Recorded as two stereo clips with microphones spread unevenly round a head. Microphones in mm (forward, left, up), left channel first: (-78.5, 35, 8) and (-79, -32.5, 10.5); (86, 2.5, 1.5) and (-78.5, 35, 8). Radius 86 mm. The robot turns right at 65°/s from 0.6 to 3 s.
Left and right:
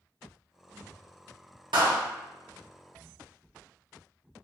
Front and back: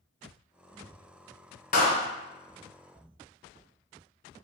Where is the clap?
55° right, 0.7 m; by 2.0 s 35° right, 0.7 m.